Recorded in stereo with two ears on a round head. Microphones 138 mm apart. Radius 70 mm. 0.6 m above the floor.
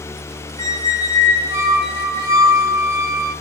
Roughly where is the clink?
I don't hear a clink.